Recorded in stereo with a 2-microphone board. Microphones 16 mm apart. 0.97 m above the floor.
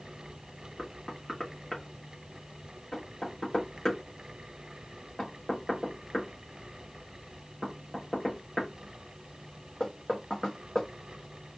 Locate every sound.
0.8 s knocking: 45° left (ahead or behind), 1.1 m